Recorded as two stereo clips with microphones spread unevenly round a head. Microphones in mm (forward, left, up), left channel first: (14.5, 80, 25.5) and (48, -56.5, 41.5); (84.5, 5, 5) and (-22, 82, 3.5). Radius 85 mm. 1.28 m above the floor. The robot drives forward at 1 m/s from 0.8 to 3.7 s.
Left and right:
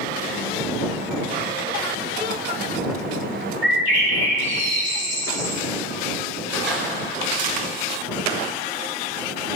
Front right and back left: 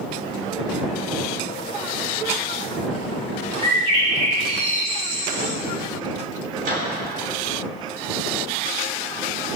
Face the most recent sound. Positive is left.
turn(degrees=-165)